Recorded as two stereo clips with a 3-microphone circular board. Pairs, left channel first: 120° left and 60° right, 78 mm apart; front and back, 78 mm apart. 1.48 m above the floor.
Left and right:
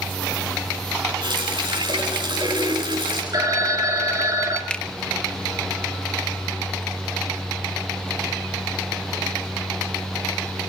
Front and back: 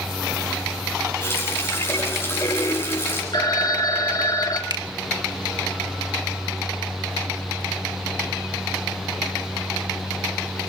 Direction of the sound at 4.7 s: 165° right.